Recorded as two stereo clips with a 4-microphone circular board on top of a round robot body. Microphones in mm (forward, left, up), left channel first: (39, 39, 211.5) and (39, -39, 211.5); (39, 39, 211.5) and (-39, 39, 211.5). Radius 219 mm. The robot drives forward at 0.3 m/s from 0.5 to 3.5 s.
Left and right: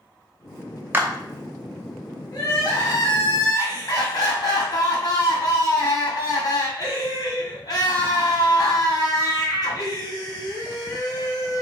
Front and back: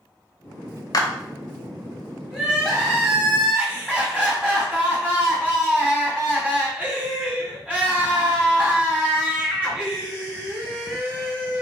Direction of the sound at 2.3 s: 95° left.